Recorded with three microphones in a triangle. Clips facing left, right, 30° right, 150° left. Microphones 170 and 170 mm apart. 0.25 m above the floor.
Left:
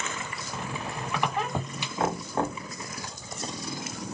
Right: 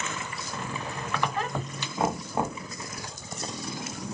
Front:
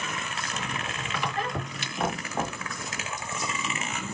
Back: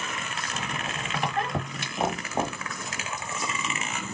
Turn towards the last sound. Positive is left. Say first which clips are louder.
# even, back 2 dB
turn(degrees=-165)